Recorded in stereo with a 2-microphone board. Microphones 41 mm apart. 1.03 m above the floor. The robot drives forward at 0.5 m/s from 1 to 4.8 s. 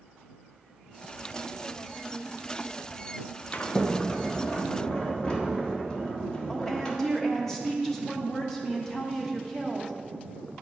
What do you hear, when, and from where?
3.5 s a sliding door: 45° left (ahead or behind), 0.5 m; by 7.0 s 20° left (ahead or behind), 1.1 m
6.5 s a woman speaking: 10° left (ahead or behind), 1.2 m